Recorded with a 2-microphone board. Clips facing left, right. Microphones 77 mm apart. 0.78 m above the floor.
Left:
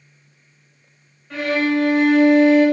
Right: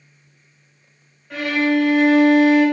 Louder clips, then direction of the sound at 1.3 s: Right 1 dB; 5° right (ahead or behind).